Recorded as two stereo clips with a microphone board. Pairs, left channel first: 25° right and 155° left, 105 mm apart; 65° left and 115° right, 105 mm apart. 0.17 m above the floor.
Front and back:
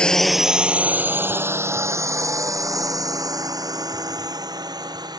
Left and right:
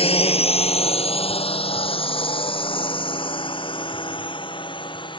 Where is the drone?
55° left; by 5.2 s 110° left.